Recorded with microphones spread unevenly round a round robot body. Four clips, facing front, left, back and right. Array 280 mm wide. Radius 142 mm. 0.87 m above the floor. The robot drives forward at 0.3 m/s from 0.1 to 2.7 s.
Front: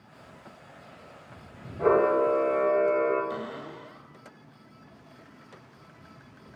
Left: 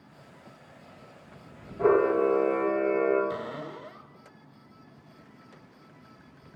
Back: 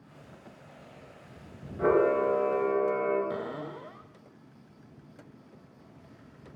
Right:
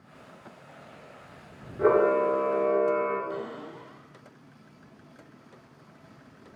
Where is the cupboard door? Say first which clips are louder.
Left 1 dB, back 1 dB; 160° left, 0.7 m.